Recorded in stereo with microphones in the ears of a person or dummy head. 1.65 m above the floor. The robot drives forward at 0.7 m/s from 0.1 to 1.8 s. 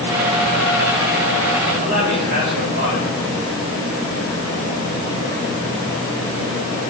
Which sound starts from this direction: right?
A man speaking, at 1.8 s.